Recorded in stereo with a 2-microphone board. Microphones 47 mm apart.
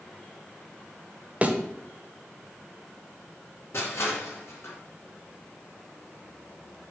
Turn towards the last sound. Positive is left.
turn(degrees=60)  # may be behind; listen again after turning